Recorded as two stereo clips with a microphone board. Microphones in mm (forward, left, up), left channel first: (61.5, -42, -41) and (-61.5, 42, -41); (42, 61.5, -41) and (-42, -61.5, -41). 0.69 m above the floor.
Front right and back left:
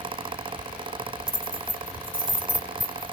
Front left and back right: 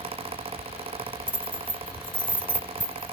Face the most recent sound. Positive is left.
turn(degrees=25)